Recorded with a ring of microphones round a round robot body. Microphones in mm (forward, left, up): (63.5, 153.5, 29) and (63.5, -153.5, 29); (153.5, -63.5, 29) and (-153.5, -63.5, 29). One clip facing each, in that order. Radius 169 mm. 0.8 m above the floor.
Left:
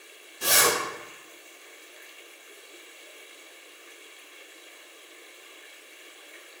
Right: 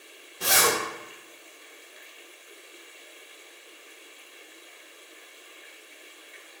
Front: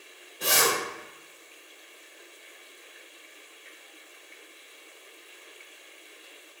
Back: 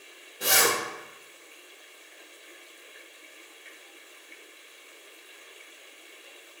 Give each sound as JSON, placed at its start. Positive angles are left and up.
{"t": 0.4, "sound": "a zipper", "azimuth_deg": -90, "distance_m": 0.6}